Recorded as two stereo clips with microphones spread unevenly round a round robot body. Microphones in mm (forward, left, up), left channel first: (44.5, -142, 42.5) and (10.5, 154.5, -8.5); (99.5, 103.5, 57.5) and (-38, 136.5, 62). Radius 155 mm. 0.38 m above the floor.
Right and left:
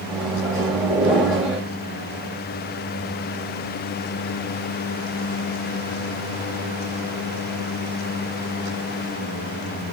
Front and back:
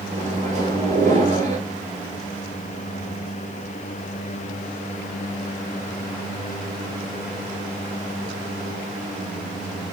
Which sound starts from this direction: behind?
A microwave, at 0.1 s.